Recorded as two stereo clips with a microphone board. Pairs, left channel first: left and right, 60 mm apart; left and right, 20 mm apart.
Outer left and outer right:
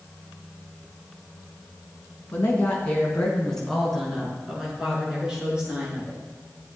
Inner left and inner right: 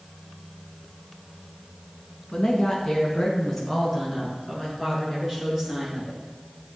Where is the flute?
No flute in this recording.